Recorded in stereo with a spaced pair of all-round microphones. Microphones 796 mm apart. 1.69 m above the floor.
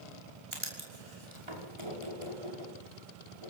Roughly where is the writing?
Right.